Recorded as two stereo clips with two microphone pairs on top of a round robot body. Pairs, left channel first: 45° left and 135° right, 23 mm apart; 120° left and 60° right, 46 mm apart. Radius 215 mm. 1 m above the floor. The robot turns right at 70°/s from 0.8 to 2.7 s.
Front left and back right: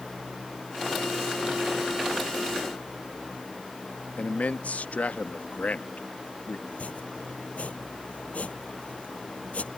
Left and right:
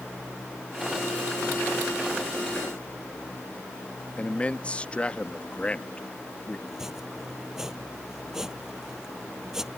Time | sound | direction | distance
4.2 | a man speaking | 55° left | ?
6.7 | chopping | 20° left | ?